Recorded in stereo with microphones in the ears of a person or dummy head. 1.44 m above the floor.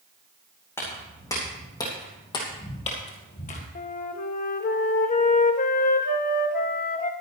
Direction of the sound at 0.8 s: 15° left (ahead or behind).